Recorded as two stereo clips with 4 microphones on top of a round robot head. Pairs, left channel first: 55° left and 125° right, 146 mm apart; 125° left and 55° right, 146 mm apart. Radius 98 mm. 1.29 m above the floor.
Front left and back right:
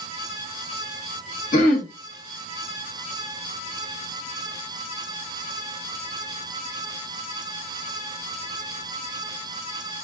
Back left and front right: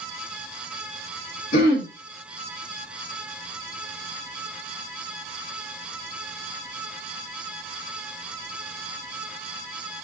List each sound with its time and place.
1.5 s throat clearing: 95° left, 1.4 m